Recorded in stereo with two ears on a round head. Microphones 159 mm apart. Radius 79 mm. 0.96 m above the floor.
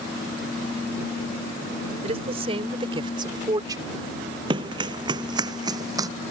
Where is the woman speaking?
35° right (ahead or behind); by 4.0 s 20° right (ahead or behind).